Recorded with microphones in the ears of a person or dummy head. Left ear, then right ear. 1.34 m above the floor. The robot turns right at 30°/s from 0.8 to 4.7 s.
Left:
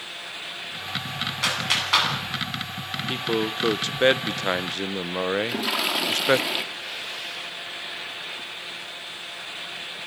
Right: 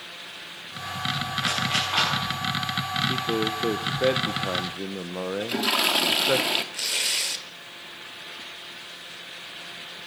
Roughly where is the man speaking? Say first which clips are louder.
Even; ahead left.